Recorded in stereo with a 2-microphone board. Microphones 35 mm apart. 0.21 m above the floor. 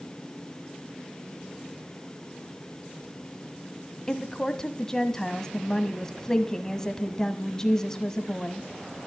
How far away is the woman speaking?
About 1.1 m.